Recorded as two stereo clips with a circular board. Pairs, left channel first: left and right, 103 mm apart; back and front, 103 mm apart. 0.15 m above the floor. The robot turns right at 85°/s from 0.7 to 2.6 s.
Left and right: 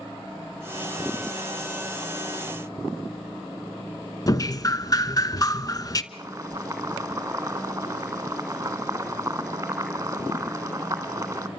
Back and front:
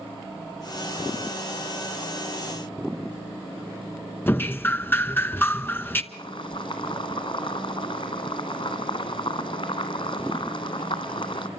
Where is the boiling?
155° right, 2 m.